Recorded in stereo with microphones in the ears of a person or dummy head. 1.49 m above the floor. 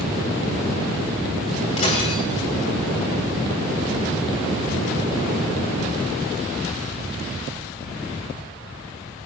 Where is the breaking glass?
35° left (ahead or behind), 3.5 m.